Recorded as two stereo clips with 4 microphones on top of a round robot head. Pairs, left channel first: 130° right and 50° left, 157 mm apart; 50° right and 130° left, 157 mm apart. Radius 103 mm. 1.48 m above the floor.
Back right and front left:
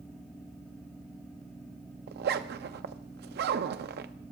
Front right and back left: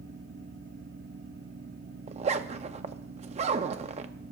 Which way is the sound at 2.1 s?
75° left.